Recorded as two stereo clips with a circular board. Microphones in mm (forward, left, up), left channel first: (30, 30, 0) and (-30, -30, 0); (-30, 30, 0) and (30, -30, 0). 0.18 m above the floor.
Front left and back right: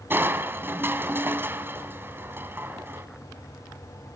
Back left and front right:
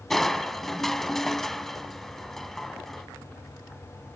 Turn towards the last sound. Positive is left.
turn(degrees=-145)